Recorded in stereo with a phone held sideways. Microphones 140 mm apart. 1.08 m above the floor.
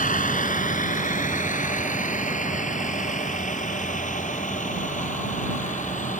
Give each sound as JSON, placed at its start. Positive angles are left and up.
{"t": 0.0, "sound": "a vehicle", "side_deg": 65}